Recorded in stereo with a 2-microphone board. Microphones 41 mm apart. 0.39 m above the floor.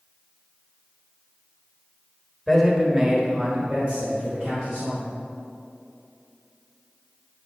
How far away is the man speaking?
About 1.4 m.